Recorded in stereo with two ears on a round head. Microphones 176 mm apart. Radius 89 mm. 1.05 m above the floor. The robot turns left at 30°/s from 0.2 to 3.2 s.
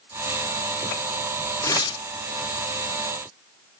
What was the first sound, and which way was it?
Tearing paper, 15° left (ahead or behind).